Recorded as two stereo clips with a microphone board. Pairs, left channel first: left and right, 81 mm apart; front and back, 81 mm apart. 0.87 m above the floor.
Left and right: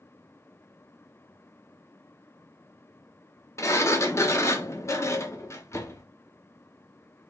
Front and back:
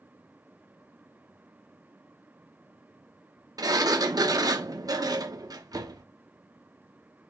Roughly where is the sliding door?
Behind left.